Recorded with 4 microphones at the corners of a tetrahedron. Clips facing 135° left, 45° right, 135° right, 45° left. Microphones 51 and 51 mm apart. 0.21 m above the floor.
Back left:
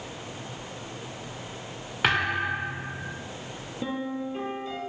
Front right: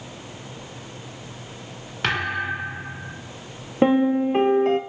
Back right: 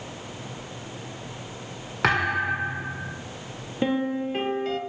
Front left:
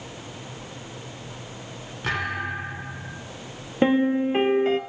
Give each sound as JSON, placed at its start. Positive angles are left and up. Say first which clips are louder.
{"t": 2.0, "sound": "a thud", "louder": "even, back right 5 dB", "azimuth_deg": -145, "distance_m": 4.0}
{"t": 3.8, "sound": "a piano", "louder": "front right 14 dB, front left 5 dB", "azimuth_deg": -20, "distance_m": 1.1}